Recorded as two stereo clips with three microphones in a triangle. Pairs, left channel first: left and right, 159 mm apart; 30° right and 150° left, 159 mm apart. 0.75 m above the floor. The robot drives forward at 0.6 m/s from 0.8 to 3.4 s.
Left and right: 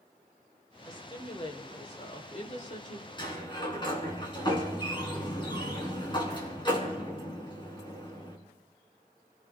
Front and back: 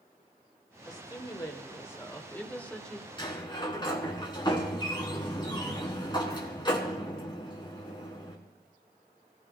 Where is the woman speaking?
30° left, 2.5 m; by 3.1 s 55° left, 1.7 m.